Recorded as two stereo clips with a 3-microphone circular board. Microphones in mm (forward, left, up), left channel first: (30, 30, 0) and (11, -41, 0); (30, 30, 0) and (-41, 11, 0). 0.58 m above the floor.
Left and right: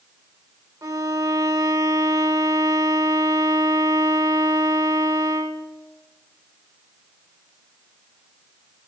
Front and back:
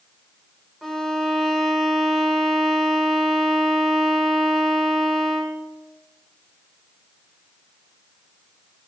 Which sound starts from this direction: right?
A violin, at 0.8 s.